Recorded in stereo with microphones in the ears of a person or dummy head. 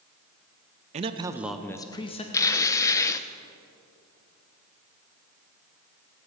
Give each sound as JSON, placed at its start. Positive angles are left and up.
{"t": 0.9, "sound": "a man speaking", "side_deg": -35, "distance_m": 0.7}
{"t": 2.3, "sound": "tearing paper", "side_deg": 20, "distance_m": 0.6}